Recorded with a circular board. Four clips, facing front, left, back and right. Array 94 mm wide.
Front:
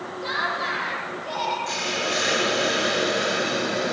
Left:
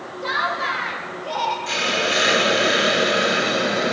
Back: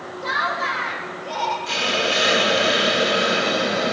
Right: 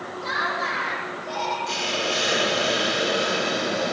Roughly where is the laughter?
Left.